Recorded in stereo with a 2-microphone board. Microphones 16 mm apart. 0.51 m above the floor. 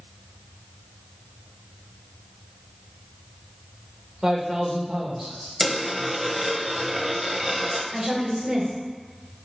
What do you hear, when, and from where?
4.2 s a man speaking: 55° right (ahead or behind), 1.8 m
5.6 s a dropped coin: 25° right (ahead or behind), 1.0 m
7.9 s a woman speaking: 40° right (ahead or behind), 2 m